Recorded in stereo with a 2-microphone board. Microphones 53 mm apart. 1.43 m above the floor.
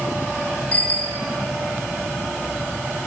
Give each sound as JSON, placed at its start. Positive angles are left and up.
{"t": 0.7, "sound": "a bicycle bell", "side_deg": 25, "distance_m": 4.5}